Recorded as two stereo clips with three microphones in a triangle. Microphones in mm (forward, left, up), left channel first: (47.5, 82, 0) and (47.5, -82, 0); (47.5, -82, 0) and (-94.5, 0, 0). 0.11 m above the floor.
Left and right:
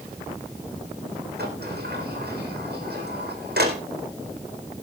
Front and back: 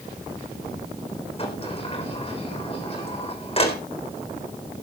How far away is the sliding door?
About 4 m.